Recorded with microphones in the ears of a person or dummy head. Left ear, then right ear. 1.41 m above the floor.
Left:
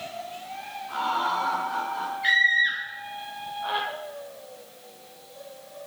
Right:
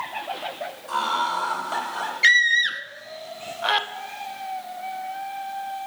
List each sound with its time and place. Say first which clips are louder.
0.9 s laughter: right 2 dB; 75° right (ahead or behind), 4.5 m; by 2.1 s 85° right, 3 m
2.2 s a scream: right 3 dB; 70° right (ahead or behind), 0.8 m